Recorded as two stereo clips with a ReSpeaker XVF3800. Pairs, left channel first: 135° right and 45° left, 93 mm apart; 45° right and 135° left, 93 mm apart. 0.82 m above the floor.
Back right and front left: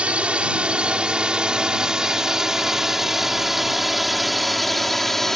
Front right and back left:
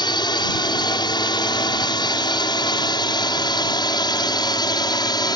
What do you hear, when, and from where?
0.0 s a drone: 30° right; by 5.4 s 50° right